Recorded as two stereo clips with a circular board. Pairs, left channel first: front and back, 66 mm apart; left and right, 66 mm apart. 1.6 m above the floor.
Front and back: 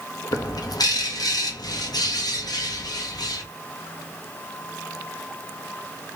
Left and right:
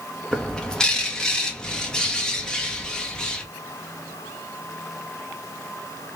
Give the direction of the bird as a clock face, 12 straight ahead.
12 o'clock.